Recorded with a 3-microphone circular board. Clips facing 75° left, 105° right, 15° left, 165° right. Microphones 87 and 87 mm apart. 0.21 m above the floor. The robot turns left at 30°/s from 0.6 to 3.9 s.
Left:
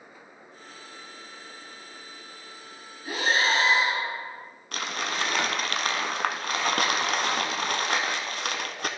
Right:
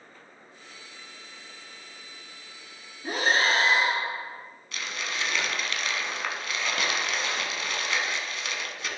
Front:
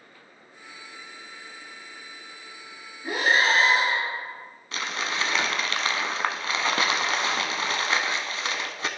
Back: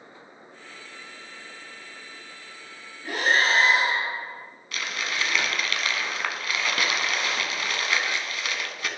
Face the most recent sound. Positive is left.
turn(degrees=65)